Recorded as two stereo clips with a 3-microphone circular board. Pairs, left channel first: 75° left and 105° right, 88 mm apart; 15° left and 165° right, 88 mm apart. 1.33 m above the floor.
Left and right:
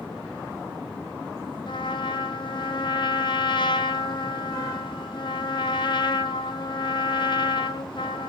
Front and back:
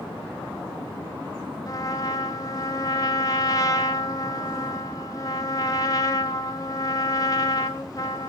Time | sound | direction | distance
1.7 | a trumpet | 60° left | 0.6 m